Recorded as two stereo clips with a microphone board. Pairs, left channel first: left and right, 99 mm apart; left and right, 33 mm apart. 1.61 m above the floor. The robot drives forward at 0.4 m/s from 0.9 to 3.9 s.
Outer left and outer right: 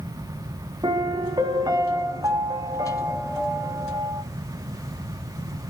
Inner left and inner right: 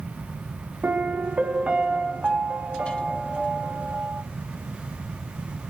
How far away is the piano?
About 1.1 m.